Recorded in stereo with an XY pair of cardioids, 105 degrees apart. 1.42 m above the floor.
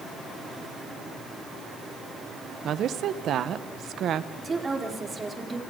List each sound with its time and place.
2.6 s a woman speaking: 65° right, 1.2 m
4.4 s a woman speaking: 30° right, 3.5 m